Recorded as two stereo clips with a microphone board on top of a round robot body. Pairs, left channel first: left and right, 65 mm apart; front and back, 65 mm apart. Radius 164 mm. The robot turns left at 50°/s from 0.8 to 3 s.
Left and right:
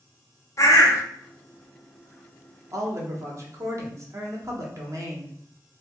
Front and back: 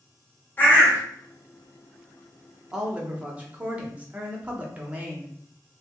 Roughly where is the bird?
Ahead left.